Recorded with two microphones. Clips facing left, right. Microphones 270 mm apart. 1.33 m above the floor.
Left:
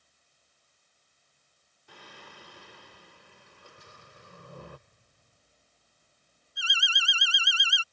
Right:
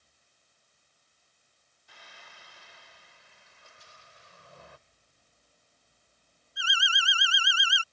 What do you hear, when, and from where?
1.9 s singing: 60° left (ahead or behind)
3.8 s an explosion: 60° left (ahead or behind)
6.6 s an alarm: 40° left (ahead or behind)